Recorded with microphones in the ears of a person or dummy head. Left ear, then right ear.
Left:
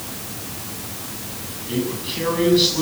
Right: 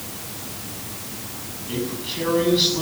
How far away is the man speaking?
About 8.5 m.